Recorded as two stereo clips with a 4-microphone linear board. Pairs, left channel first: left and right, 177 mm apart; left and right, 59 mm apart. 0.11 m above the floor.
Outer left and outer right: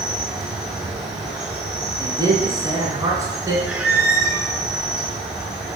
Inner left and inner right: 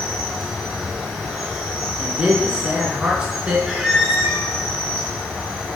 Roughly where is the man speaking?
Centre.